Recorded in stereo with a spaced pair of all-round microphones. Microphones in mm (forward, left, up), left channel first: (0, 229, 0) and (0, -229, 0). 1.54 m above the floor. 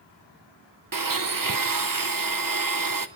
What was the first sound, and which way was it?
A blender, 45° right (ahead or behind).